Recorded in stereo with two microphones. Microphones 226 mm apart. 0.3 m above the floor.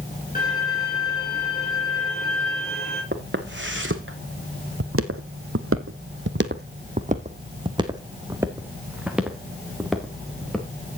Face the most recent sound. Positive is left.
turn(degrees=5)  # may be behind; listen again after turning